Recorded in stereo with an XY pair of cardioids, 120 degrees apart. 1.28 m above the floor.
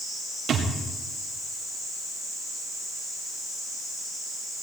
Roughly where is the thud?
Ahead right.